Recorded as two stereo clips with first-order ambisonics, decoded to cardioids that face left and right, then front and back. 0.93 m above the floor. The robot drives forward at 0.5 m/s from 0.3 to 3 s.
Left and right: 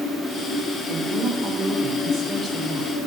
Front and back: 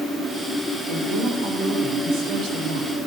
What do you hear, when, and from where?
0.9 s a woman speaking: 175° right, 3.5 m